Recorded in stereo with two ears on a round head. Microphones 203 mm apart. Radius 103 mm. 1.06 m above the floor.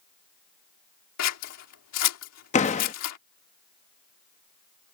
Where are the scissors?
85° left.